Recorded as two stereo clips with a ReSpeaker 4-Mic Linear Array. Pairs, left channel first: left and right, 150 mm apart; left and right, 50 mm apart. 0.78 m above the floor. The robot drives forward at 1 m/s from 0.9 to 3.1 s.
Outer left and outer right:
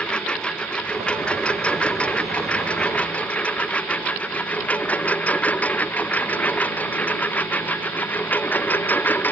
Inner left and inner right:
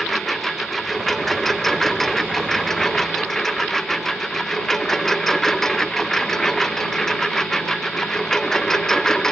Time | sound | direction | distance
0.0 | a lawn mower | 5° left (ahead or behind) | ?